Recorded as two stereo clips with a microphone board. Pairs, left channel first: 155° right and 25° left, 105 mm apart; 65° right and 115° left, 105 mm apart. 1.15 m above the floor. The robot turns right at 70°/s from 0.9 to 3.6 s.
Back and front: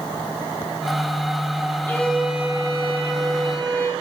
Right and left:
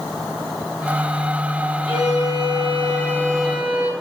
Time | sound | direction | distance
1.9 | a violin | 90° right | 1.8 m